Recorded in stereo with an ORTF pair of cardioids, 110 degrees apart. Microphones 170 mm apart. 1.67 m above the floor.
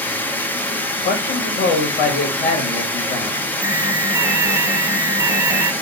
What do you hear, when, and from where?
0.0 s running water: 10° left, 0.8 m
1.1 s a man speaking: 65° left, 1.4 m
3.6 s an alarm: 15° right, 0.5 m